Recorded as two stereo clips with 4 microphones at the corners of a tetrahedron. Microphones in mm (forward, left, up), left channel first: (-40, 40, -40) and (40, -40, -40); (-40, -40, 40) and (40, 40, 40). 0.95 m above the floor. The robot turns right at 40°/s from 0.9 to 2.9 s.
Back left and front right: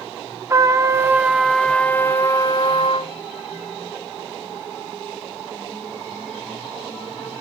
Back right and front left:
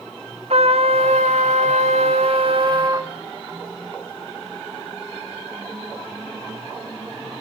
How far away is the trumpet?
About 1.2 m.